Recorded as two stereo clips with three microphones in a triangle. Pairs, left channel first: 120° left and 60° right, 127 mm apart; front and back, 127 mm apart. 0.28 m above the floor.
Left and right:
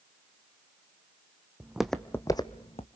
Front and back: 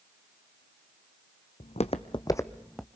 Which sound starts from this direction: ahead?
Footsteps, at 1.6 s.